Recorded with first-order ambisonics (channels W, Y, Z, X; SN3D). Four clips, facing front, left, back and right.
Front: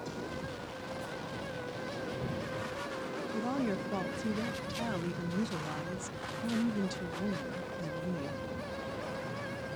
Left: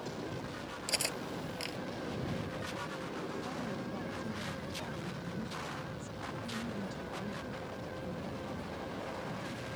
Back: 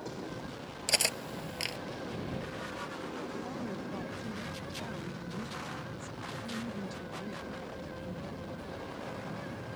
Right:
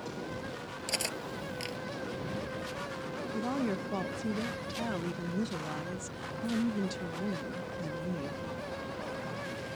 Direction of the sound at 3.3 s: 50° right.